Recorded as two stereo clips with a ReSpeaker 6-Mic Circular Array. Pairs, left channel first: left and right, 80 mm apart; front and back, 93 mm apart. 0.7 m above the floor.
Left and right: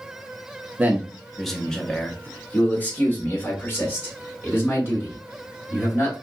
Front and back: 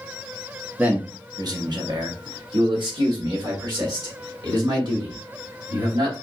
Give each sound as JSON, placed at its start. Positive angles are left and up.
{"t": 0.8, "sound": "a man speaking", "azimuth_deg": -125, "distance_m": 0.6}